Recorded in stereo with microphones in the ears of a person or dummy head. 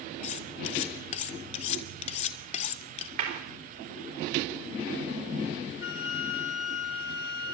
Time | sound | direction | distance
0.2 | cutlery clinking | 35° left (ahead or behind) | 0.5 m
3.2 | a clap | 50° right (ahead or behind) | 3.5 m
5.8 | a flute | 65° left (ahead or behind) | 3.5 m